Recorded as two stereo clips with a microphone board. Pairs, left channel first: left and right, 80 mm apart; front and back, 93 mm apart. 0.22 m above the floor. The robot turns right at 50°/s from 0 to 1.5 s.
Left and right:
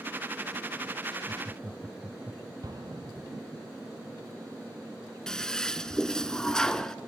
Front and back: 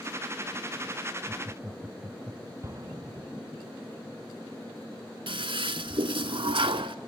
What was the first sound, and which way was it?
Laughter, 130° right.